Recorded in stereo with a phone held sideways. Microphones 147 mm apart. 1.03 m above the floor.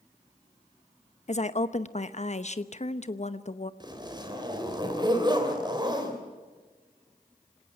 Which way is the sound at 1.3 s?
50° left (ahead or behind).